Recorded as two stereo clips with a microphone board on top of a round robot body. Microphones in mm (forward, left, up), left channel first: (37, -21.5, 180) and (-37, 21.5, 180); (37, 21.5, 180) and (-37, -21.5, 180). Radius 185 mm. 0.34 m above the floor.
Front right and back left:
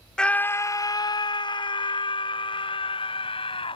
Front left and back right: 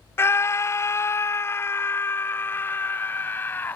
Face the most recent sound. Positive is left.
turn(degrees=-35)